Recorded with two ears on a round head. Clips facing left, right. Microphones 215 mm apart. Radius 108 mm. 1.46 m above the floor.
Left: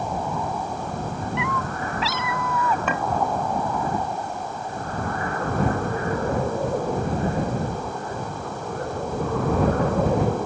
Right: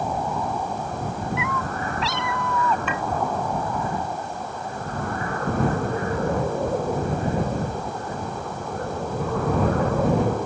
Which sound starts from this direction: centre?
A cat meowing, at 1.4 s.